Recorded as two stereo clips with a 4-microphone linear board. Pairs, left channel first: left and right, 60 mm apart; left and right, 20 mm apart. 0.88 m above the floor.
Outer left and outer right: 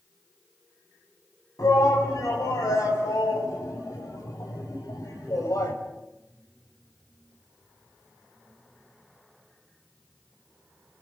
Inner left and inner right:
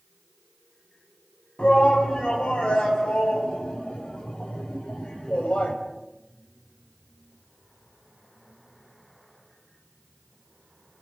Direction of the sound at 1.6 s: 85° left.